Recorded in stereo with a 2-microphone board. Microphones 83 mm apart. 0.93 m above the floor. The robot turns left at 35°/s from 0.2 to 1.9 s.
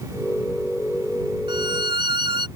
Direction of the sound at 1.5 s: 80° right.